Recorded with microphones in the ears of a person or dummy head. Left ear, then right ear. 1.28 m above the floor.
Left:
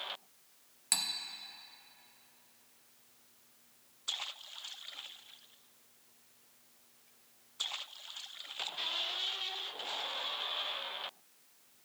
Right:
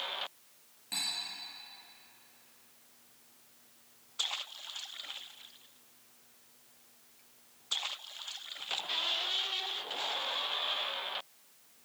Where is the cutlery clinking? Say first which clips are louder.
Left 2 dB; 45° left (ahead or behind), 0.7 m.